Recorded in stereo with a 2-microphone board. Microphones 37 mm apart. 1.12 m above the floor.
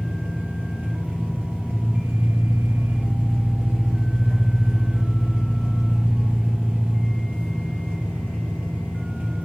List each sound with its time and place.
0.0 s an engine running: 50° right (ahead or behind), 0.9 m